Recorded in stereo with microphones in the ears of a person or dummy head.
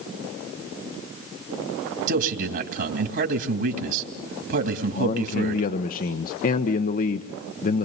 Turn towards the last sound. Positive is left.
turn(degrees=45)  # may be behind; listen again after turning